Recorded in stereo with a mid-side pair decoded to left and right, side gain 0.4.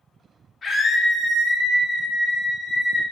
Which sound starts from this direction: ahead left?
A scream, at 0.6 s.